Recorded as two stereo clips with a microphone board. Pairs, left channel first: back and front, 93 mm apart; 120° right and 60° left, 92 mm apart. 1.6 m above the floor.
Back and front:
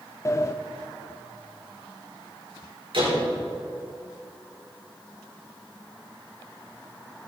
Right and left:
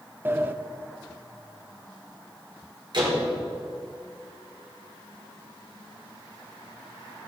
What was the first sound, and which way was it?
A sliding door, 125° left.